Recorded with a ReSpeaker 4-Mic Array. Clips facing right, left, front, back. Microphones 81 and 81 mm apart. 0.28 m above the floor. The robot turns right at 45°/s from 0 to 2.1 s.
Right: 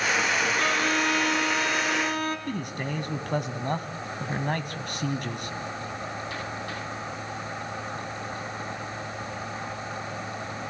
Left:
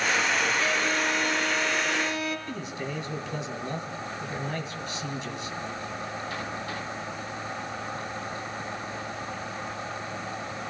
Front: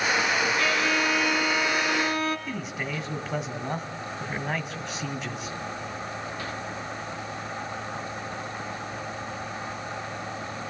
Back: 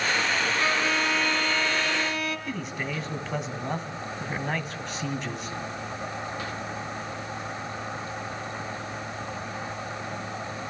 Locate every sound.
0.6 s a violin: 120° right, 2 m; by 2.4 s 50° right, 2 m
2.5 s a man speaking: 85° right, 1.9 m